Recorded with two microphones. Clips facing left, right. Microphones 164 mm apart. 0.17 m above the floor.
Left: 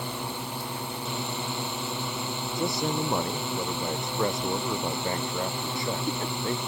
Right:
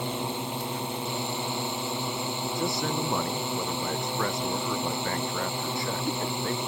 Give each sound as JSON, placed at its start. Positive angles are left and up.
{"t": 0.0, "sound": "a drone", "side_deg": -20}
{"t": 2.6, "sound": "a man speaking", "side_deg": 20}